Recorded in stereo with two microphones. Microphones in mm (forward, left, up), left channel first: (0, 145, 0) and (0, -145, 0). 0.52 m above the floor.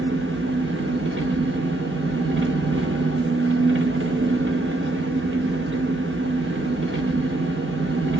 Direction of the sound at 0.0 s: 45° right (ahead or behind).